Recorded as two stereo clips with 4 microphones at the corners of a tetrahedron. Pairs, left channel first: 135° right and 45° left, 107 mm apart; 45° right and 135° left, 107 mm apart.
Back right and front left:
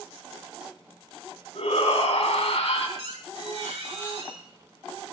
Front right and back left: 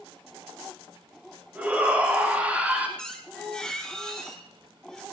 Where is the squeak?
40° left, 2.5 m.